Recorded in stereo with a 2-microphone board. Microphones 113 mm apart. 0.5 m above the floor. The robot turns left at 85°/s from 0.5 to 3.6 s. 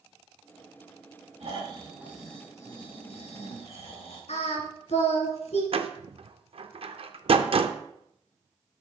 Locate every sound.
1.4 s snoring: 110° right, 3.5 m; by 4.2 s 65° left, 3.5 m
4.3 s singing: 75° left (ahead or behind), 1.8 m
5.7 s a door slam: 55° right (ahead or behind), 0.6 m